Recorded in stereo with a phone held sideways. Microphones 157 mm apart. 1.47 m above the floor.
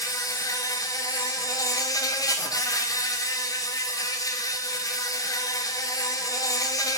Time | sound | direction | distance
0.0 | an insect | 20° left (ahead or behind) | 0.8 m